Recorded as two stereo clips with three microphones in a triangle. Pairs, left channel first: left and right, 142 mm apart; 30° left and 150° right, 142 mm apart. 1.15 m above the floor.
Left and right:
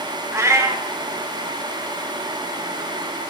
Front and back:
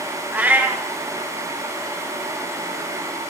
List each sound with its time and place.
0.3 s a cat meowing: 95° right, 0.5 m